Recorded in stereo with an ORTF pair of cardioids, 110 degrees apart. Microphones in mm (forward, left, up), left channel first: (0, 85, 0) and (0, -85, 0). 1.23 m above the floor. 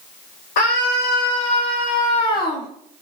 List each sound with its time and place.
0.6 s a scream: 70° left, 4.5 m; by 2.7 s 60° left, 1.8 m